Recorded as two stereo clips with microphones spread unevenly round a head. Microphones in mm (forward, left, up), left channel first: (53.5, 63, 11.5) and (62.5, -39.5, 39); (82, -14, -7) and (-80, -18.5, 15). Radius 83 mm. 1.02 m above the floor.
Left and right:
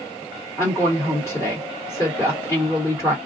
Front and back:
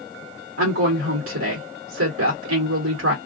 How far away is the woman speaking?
About 1.2 m.